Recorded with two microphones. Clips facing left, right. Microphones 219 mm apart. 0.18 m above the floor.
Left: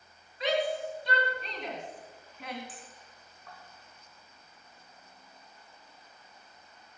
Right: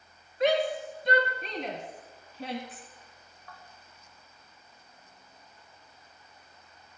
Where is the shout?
50° right (ahead or behind), 1.9 m; by 2.6 s 30° right (ahead or behind), 1.4 m.